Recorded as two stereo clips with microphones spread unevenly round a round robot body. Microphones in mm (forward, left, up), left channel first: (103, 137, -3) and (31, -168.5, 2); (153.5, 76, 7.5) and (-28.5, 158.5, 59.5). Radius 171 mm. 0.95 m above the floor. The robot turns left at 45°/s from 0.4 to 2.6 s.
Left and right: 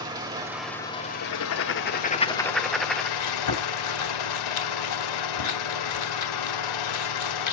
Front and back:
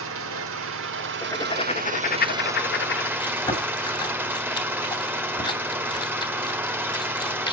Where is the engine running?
175° left, 1.6 m; by 7.5 s 80° left, 1.6 m.